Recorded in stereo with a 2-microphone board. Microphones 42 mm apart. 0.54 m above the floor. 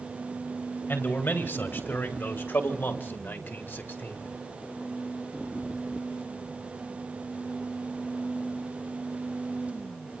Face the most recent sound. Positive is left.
turn(degrees=55)  # may be behind; listen again after turning